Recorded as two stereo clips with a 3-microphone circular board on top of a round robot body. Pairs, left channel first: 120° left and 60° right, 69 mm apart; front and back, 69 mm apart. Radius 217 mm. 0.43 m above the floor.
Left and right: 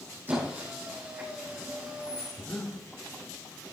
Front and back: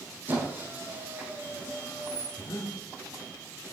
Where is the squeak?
120° right, 3.5 m.